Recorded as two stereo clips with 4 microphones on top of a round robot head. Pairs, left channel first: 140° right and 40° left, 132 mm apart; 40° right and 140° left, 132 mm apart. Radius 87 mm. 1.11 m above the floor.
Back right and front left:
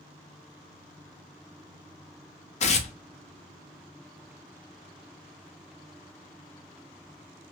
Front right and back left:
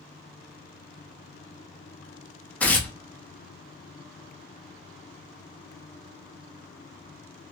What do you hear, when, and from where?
2.6 s tearing paper: 115° right, 0.7 m